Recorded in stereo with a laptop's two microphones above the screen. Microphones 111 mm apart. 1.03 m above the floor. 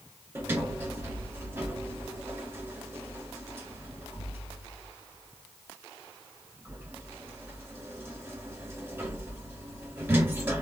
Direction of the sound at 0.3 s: 20° right (ahead or behind).